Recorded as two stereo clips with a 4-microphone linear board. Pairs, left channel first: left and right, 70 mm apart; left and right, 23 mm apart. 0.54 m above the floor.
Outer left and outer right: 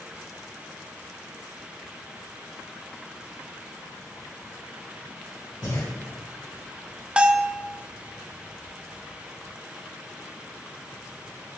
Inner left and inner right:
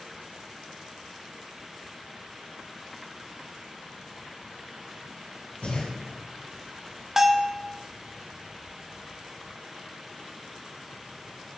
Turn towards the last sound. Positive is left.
turn(degrees=-15)  # may be behind; listen again after turning